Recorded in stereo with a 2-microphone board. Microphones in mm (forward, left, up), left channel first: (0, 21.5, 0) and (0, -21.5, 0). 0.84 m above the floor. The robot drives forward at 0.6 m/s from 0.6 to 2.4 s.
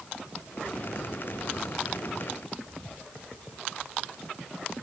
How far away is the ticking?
I don't hear ticking.